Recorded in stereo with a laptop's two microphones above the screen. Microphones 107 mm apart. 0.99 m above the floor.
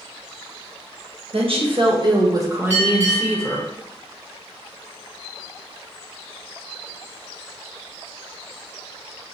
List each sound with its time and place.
1.3 s a woman speaking: 60° right (ahead or behind), 1.2 m; by 3.7 s 10° left (ahead or behind), 1.0 m
2.7 s a bell: 80° right, 1.8 m